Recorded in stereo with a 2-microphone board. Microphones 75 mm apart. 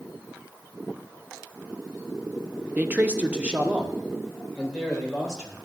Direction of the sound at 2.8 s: 25° right (ahead or behind).